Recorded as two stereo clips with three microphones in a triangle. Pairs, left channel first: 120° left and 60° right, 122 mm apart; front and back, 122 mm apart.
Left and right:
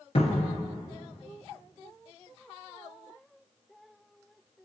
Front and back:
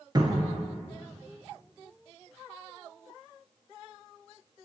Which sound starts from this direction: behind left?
A cupboard door, at 0.1 s.